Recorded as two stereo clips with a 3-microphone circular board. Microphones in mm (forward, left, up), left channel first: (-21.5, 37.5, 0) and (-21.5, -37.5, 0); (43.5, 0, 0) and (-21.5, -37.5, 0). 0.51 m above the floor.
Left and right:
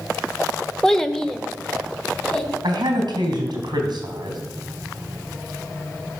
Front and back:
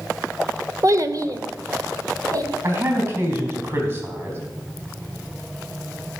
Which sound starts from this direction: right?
A man speaking, at 2.6 s.